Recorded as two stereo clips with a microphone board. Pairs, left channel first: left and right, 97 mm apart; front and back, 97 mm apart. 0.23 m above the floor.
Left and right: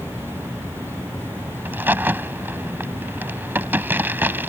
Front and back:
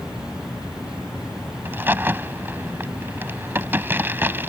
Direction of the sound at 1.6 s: 135° right.